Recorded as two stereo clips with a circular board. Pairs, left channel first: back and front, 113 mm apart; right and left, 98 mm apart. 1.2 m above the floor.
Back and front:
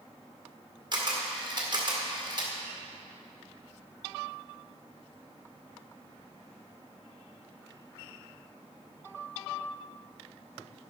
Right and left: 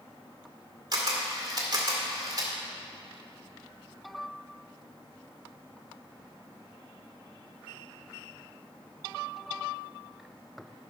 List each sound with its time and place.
0.9 s a camera shutter: 50° left, 2.0 m